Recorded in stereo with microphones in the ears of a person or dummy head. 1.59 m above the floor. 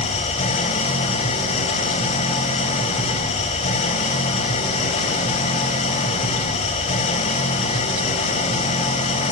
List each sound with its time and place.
0.0 s an engine running: 40° left (ahead or behind), 3 m